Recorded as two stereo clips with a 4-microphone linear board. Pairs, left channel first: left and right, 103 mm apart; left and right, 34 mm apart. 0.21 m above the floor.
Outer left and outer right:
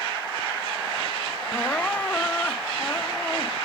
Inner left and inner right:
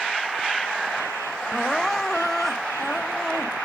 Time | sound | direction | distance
1.5 | crying | 15° left (ahead or behind) | ?